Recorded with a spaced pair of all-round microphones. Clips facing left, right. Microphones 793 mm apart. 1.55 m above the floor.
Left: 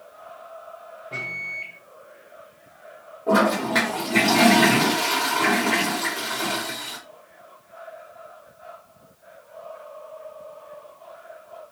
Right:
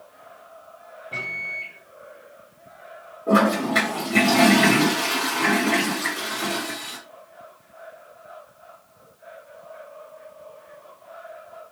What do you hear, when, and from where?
1.1 s a microwave: 45° left (ahead or behind), 1.3 m
3.3 s a toilet flushing: 30° left (ahead or behind), 1.3 m